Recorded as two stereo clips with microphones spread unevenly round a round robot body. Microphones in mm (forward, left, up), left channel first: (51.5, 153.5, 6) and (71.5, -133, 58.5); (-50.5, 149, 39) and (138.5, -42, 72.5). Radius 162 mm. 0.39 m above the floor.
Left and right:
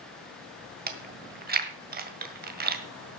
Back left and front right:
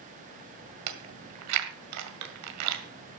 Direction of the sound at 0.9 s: 25° right.